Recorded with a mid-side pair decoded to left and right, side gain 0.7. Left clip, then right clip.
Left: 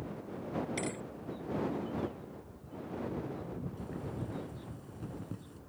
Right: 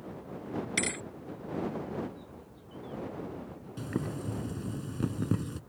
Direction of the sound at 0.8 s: 45° right.